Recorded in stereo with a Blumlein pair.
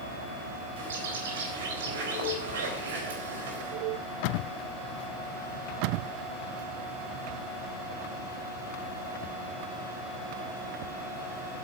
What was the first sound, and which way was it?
A bird, 60° right.